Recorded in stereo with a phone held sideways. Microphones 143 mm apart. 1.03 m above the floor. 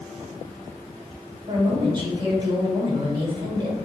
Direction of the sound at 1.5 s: 40° right (ahead or behind).